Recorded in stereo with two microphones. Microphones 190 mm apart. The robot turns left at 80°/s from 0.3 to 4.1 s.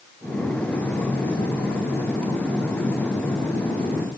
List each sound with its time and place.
Only background noise.